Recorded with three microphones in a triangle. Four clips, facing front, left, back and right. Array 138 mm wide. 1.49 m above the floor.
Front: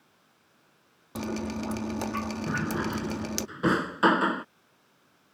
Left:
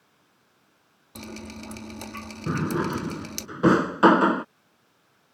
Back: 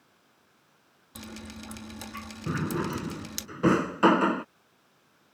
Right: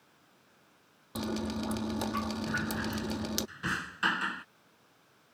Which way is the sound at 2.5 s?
100° left.